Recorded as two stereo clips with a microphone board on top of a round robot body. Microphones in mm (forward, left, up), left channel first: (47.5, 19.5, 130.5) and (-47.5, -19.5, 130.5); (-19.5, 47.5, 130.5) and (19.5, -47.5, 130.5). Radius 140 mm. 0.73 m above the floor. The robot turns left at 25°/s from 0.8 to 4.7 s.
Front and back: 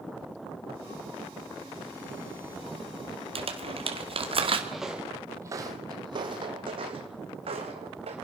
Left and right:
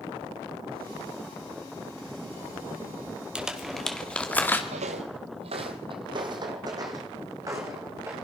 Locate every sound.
3.4 s crumpling: 150° right, 2.5 m; by 4.6 s straight behind, 2.5 m
4.7 s footsteps: 65° right, 1.4 m; by 8.2 s 130° right, 3.5 m